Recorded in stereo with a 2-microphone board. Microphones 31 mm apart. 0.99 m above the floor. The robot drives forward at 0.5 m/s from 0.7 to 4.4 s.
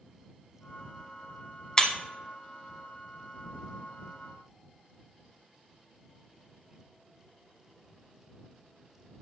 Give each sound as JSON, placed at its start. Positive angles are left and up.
{"t": 1.8, "sound": "breaking glass", "side_deg": 20, "distance_m": 0.9}